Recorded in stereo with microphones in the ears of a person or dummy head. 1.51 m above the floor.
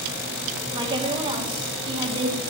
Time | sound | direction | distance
0.7 | a woman speaking | 20° right (ahead or behind) | 2 m